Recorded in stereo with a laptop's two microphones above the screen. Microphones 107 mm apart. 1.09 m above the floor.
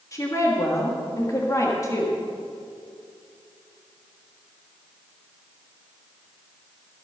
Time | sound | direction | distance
0.1 | a woman speaking | 35° left (ahead or behind) | 1.4 m